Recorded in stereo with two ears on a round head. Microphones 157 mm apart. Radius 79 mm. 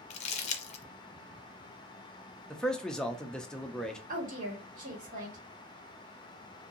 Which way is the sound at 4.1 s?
45° right (ahead or behind).